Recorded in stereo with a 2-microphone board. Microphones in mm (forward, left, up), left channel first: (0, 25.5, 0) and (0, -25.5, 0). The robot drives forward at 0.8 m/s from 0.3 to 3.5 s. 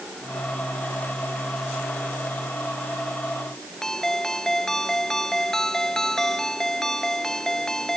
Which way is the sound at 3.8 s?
10° left (ahead or behind).